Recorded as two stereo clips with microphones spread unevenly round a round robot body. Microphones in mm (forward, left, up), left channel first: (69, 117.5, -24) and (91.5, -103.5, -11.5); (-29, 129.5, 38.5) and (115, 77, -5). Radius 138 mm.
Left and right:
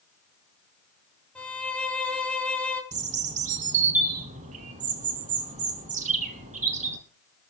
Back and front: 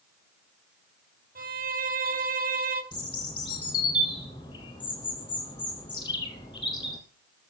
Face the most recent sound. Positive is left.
turn(degrees=-140)